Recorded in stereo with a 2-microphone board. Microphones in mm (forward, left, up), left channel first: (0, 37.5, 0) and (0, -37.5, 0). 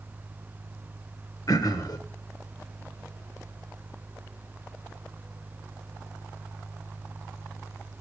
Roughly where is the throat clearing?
Left.